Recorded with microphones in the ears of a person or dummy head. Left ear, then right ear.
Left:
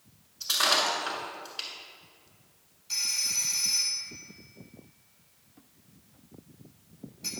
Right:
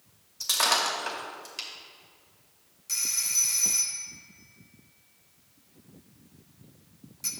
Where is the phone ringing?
65° right (ahead or behind), 1.2 m.